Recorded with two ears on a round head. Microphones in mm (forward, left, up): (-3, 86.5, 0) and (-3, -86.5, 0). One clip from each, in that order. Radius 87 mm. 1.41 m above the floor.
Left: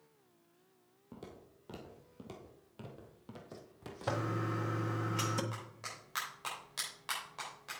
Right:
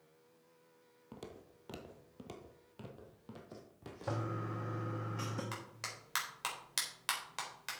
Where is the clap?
60° right (ahead or behind), 4 m.